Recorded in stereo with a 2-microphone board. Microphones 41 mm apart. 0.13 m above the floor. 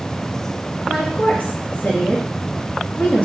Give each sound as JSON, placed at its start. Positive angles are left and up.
{"t": 0.9, "sound": "a woman speaking", "side_deg": 45, "distance_m": 2.0}